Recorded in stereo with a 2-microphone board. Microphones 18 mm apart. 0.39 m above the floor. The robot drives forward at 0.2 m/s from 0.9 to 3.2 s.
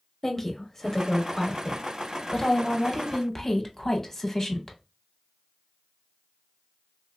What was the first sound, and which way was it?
A woman speaking, 20° left (ahead or behind).